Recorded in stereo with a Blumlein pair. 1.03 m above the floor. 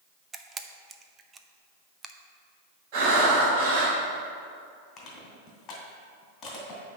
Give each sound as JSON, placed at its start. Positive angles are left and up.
{"t": 0.3, "sound": "a camera shutter", "azimuth_deg": -15, "distance_m": 0.5}
{"t": 2.9, "sound": "breathing", "azimuth_deg": -40, "distance_m": 2.5}
{"t": 5.0, "sound": "crushing", "azimuth_deg": 25, "distance_m": 2.0}